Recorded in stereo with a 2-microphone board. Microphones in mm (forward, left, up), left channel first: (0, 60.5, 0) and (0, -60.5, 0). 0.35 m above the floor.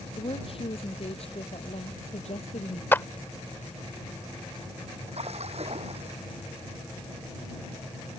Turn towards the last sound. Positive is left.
turn(degrees=-60)  # may be behind; listen again after turning